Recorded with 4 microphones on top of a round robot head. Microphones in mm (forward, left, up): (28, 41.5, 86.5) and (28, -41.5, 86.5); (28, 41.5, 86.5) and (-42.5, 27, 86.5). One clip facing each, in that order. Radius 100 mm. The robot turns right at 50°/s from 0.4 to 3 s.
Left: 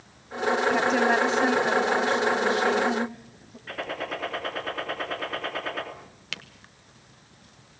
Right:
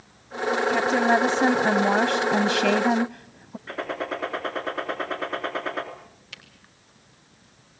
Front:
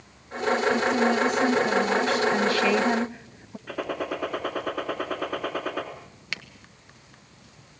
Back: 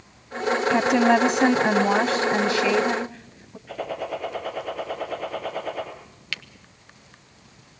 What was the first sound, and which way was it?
A woman speaking, 170° right.